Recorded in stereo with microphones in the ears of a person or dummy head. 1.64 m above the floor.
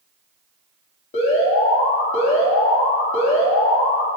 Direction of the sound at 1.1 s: 35° left (ahead or behind).